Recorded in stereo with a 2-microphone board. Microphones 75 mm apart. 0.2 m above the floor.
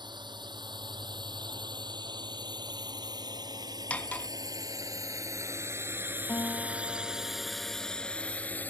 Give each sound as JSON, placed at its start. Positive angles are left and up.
{"t": 0.0, "sound": "a drone", "side_deg": -75}
{"t": 3.9, "sound": "cutlery clinking", "side_deg": 15}
{"t": 6.3, "sound": "a guitar", "side_deg": 25}